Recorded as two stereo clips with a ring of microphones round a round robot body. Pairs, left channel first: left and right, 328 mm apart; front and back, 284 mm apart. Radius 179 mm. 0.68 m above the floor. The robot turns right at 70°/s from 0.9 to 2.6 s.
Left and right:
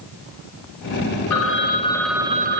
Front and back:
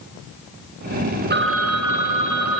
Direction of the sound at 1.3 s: 125° left.